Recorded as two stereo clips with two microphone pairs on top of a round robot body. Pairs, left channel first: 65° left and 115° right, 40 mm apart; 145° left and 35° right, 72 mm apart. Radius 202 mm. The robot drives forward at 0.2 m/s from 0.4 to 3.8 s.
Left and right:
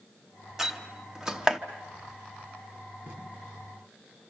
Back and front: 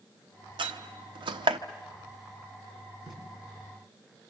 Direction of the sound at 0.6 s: 35° right.